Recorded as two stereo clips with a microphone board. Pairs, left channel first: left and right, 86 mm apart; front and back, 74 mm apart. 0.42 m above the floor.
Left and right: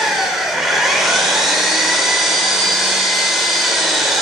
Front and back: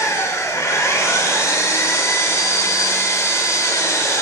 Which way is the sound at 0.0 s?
Straight ahead.